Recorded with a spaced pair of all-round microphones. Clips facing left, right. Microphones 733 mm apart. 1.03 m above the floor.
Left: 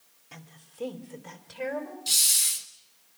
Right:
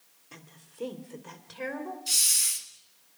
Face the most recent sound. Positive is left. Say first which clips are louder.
# left 1 dB
turn(degrees=70)  # may be behind; listen again after turning